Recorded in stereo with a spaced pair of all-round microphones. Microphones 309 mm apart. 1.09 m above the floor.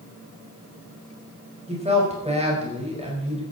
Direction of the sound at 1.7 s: 20° right (ahead or behind).